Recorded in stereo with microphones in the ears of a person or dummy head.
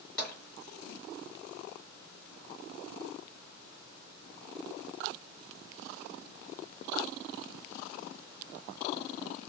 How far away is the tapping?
About 2 m.